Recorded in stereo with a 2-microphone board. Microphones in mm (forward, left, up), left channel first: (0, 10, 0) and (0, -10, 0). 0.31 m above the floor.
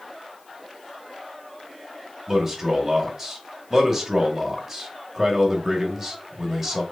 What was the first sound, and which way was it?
A man speaking, 10° right (ahead or behind).